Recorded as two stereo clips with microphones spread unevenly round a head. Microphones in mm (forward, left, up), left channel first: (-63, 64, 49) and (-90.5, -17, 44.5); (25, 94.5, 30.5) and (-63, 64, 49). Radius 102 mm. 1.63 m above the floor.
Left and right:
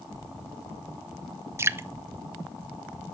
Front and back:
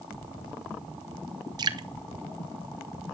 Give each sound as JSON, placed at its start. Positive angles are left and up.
{"t": 1.6, "sound": "dripping", "azimuth_deg": -160, "distance_m": 0.9}